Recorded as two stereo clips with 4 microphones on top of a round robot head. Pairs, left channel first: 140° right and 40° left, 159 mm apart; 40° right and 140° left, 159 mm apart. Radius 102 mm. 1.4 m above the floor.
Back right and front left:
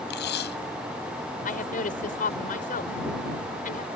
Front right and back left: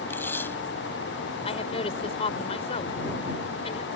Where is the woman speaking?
100° right.